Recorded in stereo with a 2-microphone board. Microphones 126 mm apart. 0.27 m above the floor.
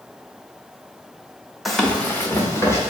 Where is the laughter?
No laughter in this recording.